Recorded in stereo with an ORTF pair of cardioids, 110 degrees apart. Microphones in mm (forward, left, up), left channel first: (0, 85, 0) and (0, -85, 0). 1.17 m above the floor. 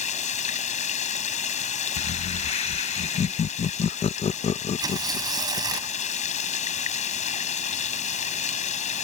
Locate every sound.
0.0 s running water: 45° left
2.0 s laughter: 35° left
4.8 s tearing paper: 20° right